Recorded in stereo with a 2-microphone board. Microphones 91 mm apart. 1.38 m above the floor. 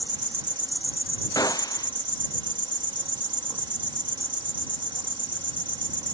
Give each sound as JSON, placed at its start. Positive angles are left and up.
{"t": 0.0, "sound": "an insect", "side_deg": -65}
{"t": 1.4, "sound": "a gunshot", "side_deg": 45}